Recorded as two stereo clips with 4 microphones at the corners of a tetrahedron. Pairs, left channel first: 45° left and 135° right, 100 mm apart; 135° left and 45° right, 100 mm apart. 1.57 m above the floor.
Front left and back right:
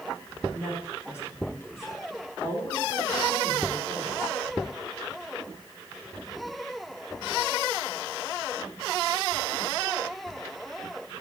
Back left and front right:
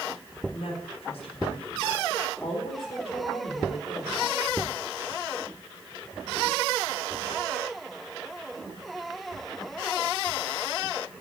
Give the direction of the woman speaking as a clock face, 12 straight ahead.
8 o'clock.